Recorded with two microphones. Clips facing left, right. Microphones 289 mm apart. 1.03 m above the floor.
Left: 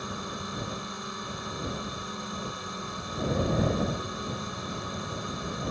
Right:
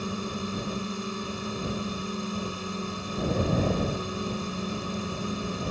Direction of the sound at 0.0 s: 35° right (ahead or behind).